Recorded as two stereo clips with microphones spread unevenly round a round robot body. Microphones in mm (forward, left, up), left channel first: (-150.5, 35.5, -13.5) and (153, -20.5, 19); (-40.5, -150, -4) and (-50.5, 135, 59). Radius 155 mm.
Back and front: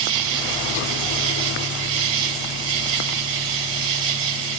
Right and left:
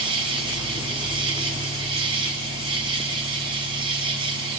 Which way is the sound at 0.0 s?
15° left.